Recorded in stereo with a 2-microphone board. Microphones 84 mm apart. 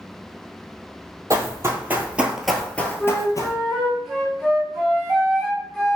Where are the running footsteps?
35° right (ahead or behind), 1.1 m; by 3.5 s 50° left (ahead or behind), 0.8 m.